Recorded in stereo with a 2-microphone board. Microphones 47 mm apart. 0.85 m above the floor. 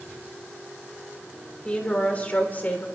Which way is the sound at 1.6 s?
25° left (ahead or behind).